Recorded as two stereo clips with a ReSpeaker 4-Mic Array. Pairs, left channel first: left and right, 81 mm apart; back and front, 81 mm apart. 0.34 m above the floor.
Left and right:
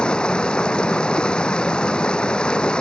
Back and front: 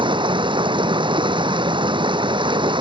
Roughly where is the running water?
Ahead.